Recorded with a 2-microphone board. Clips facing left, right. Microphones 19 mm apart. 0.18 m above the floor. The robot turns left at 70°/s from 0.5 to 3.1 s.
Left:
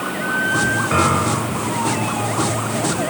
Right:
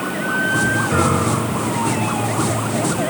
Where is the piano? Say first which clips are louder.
Even; 50° left, 1.1 m; by 1.7 s straight ahead, 1.1 m.